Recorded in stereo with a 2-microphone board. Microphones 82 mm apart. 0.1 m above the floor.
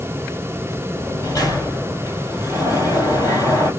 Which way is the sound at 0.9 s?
45° left (ahead or behind).